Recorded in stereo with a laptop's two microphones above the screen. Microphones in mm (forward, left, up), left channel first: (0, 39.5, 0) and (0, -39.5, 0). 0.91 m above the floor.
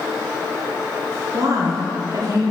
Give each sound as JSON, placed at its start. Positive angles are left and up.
{"t": 1.3, "sound": "a woman speaking", "side_deg": -45, "distance_m": 1.0}